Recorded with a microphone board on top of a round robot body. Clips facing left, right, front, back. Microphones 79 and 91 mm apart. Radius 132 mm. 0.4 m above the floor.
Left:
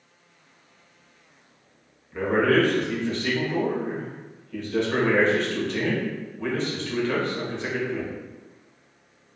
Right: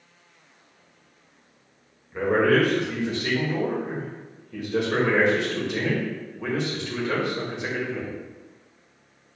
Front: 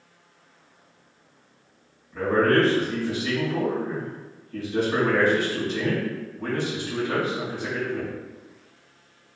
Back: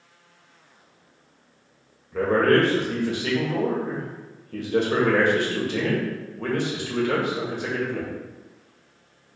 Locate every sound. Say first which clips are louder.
2.1 s a man speaking: right 1 dB, back 1 dB; 165° right, 1.8 m